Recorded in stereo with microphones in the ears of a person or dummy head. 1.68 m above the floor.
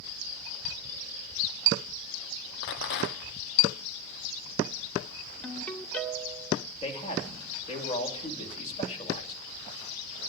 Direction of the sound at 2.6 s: 65° left (ahead or behind).